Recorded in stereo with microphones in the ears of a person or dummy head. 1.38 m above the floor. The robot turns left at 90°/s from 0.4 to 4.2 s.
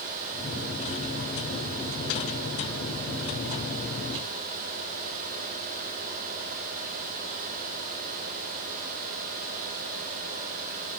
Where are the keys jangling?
I don't hear keys jangling.